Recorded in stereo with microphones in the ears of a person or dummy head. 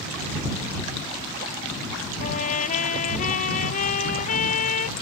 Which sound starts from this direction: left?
A trumpet, at 2.2 s.